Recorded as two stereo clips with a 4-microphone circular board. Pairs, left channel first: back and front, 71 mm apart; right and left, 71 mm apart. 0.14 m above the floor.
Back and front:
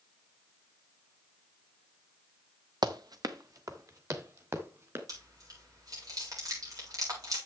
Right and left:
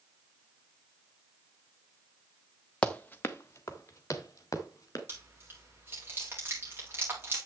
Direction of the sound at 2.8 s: 15° right.